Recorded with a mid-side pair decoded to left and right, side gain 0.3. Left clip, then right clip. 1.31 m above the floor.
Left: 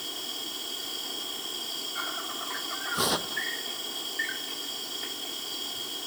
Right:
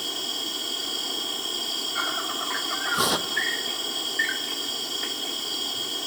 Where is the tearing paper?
25° right.